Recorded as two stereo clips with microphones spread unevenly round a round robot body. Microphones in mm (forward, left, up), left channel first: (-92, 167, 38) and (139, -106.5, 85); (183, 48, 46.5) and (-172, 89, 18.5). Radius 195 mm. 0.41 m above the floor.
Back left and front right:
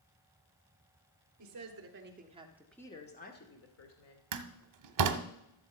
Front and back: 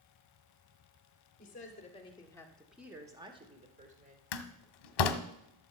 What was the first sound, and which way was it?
A woman speaking, 70° right.